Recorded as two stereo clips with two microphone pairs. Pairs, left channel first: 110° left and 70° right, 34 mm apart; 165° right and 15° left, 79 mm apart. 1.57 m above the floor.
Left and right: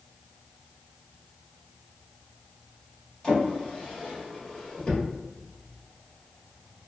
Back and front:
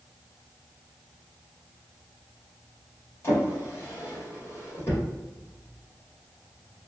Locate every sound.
3.2 s a drawer: 160° left, 1.7 m